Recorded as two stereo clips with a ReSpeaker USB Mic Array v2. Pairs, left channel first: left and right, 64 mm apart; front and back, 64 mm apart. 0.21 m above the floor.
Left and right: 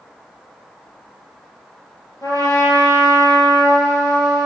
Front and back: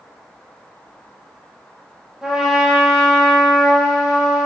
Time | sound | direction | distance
2.2 | a trumpet | 100° left | 1.8 m